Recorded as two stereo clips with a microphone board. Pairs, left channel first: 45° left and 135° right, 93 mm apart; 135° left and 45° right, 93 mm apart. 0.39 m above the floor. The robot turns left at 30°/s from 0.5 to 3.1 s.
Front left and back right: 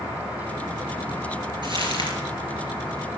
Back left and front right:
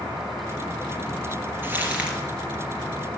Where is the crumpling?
110° right, 3.5 m; by 2.2 s 125° right, 3.5 m.